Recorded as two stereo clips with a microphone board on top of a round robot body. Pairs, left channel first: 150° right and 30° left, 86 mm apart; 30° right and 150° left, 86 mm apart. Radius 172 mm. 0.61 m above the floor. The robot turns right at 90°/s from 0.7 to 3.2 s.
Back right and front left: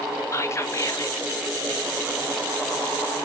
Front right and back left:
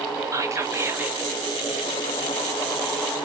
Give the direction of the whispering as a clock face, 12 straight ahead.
6 o'clock.